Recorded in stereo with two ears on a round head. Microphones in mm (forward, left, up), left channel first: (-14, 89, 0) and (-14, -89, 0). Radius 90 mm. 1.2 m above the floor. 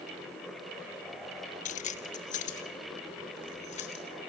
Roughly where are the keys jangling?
Left.